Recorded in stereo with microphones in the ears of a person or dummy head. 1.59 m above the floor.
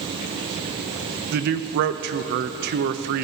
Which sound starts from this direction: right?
A man speaking, at 1.3 s.